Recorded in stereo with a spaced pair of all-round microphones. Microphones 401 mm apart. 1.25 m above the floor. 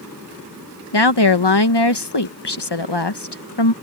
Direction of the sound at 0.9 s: 80° left.